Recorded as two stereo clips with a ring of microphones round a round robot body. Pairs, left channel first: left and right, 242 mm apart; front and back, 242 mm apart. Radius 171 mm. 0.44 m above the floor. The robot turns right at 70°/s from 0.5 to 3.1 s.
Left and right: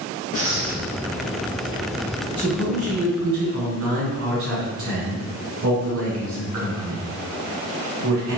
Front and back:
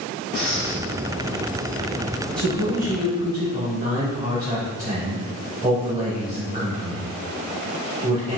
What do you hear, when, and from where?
0.3 s breathing: 125° right, 1.5 m; by 0.8 s 100° right, 1.5 m
2.4 s a man speaking: 155° right, 1.8 m; by 8.4 s 105° right, 1.8 m